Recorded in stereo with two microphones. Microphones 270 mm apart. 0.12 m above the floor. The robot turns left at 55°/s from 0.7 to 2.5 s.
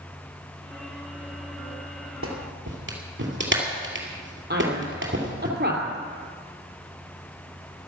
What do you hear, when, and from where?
2.2 s a clap: 55° right (ahead or behind), 2.5 m; by 5.5 s 45° right (ahead or behind), 2.5 m
4.5 s a man speaking: 40° right (ahead or behind), 3 m